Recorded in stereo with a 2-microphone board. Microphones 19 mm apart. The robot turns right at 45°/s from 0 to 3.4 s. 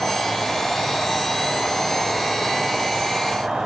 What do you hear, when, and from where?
0.0 s an insect: 75° left, 7.5 m; by 3.7 s 135° right, 7.5 m